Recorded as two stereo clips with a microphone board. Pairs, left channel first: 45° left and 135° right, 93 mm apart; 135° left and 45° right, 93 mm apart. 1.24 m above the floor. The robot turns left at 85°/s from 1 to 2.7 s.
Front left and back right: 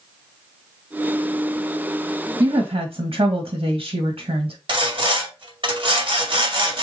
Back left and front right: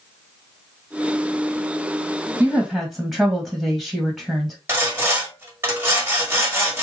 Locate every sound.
2.4 s a woman speaking: 95° right, 1.4 m; by 4.6 s 120° right, 1.4 m
4.7 s sawing: 110° right, 1.7 m